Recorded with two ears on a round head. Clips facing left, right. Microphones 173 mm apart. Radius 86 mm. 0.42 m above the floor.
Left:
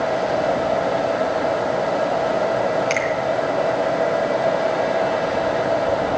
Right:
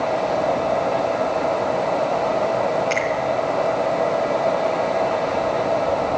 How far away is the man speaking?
No man speaking in this recording.